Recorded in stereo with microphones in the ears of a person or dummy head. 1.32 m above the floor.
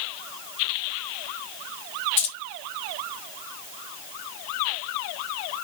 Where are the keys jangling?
35° left (ahead or behind), 1.0 m.